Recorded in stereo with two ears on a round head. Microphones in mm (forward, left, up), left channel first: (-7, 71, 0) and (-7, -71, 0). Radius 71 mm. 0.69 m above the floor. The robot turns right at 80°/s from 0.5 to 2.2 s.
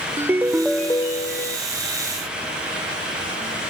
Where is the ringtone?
15° right; by 1.6 s 75° left.